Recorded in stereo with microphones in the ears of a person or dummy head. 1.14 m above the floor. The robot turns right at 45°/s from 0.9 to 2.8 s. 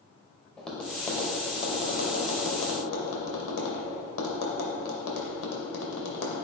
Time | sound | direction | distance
0.6 | tapping | 10° left (ahead or behind) | 2 m